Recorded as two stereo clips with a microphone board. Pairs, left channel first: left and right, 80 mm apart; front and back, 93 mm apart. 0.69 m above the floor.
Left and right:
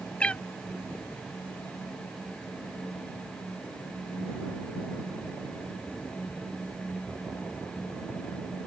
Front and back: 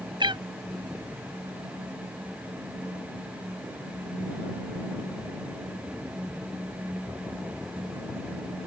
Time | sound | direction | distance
0.2 | a cat meowing | 165° left | ?